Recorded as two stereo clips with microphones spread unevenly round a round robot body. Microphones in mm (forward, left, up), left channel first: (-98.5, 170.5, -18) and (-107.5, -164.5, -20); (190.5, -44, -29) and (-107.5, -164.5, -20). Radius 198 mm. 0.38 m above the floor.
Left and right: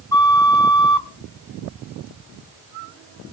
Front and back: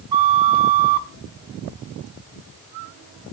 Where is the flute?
170° left, 0.8 m.